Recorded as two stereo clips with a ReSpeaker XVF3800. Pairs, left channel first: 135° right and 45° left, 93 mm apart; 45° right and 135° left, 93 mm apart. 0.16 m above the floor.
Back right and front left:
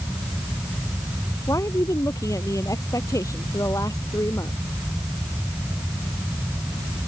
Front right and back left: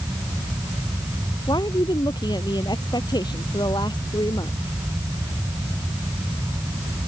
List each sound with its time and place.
1.5 s a woman speaking: 85° right